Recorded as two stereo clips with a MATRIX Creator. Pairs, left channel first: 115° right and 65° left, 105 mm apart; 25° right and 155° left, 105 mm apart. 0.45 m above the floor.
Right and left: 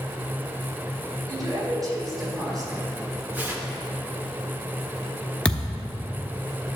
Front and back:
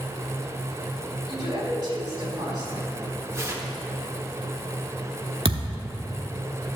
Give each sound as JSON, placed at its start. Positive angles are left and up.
{"t": 1.3, "sound": "a woman speaking", "azimuth_deg": 120, "distance_m": 3.0}
{"t": 3.3, "sound": "tearing paper", "azimuth_deg": 125, "distance_m": 1.0}
{"t": 5.5, "sound": "a thud", "azimuth_deg": 170, "distance_m": 0.7}